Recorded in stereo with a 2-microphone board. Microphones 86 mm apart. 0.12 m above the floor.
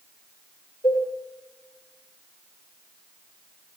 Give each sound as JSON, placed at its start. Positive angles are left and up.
{"t": 0.8, "sound": "a cowbell", "side_deg": 80, "distance_m": 9.5}